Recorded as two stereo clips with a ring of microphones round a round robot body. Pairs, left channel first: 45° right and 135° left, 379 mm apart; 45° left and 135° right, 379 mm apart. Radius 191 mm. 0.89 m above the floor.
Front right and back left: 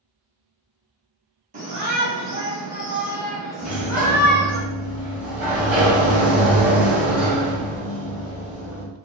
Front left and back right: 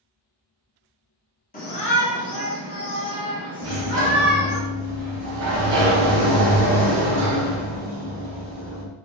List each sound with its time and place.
1.5 s a shout: 85° left, 1.0 m; by 4.6 s 40° left, 2 m
3.6 s a sliding door: 140° right, 0.9 m